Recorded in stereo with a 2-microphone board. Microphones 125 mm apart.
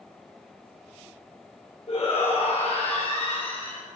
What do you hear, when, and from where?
1.9 s a shout: 50° left (ahead or behind), 4.5 m; by 3.8 s 45° left (ahead or behind), 3.5 m